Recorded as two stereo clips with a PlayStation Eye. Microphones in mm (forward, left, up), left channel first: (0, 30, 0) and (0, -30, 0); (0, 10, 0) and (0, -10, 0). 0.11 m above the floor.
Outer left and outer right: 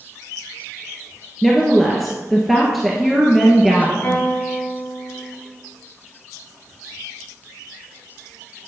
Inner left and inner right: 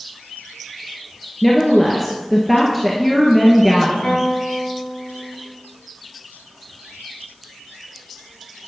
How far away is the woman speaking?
About 1.6 m.